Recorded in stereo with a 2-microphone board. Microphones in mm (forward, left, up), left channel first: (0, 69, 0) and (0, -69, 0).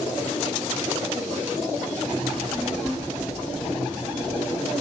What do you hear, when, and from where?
2.3 s a child speaking: 15° right (ahead or behind), 1.5 m; by 4.7 s 20° left (ahead or behind), 2 m